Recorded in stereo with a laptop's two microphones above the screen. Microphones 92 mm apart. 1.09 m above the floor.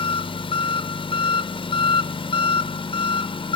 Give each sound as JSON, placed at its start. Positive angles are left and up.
{"t": 0.0, "sound": "an engine running", "side_deg": 70, "distance_m": 0.7}